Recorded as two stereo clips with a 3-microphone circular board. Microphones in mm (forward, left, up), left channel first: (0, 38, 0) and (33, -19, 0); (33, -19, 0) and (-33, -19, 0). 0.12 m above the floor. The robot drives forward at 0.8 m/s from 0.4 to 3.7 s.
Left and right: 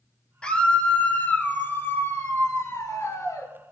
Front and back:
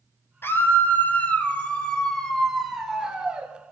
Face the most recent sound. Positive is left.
turn(degrees=120)